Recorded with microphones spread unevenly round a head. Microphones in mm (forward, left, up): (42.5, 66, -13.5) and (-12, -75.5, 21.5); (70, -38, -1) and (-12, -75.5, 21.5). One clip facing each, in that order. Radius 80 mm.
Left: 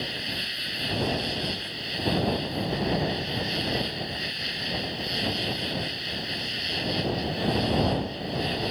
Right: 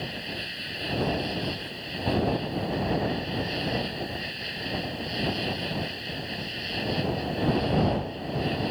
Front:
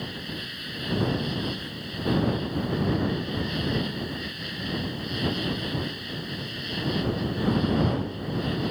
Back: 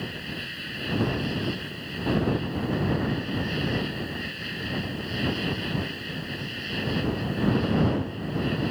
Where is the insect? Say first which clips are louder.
Even, even; 105° left.